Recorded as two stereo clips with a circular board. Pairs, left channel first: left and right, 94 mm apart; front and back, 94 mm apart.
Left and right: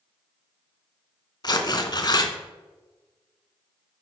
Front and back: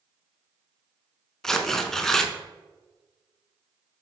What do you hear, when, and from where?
1.4 s tearing paper: 80° left, 0.6 m